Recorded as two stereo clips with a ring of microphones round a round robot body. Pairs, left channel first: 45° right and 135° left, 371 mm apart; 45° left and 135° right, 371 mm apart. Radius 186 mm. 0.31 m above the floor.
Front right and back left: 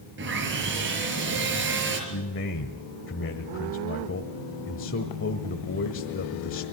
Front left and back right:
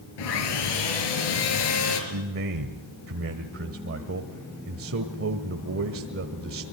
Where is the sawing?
75° left, 5 m.